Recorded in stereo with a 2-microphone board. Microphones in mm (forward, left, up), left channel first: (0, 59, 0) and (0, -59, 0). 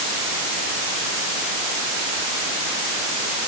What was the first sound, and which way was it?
Only background noise.